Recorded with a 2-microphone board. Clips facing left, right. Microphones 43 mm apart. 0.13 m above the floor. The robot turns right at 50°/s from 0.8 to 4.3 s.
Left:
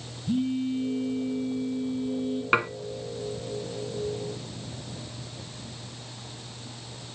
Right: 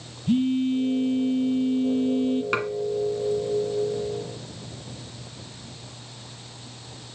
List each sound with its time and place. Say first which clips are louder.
0.3 s a phone buzzing: right 5 dB; 130° right, 0.8 m; by 2.4 s 45° right, 0.8 m
2.5 s dishes clattering: left 2 dB; 20° left (ahead or behind), 1.0 m